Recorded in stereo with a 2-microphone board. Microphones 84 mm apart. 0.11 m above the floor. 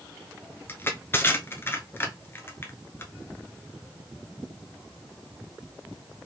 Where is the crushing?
30° left (ahead or behind), 0.9 m.